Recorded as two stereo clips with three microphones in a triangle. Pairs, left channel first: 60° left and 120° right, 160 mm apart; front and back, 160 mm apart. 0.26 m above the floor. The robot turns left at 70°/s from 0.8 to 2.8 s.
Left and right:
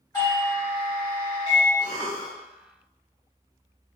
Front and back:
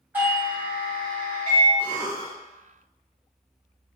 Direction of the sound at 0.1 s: 110° left.